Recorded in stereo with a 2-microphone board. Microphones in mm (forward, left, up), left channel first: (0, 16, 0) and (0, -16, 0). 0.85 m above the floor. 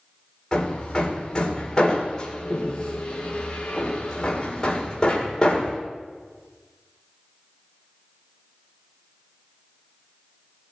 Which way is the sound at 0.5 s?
20° left (ahead or behind).